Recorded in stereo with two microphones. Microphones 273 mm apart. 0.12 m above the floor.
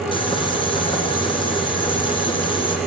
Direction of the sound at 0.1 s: 20° left (ahead or behind).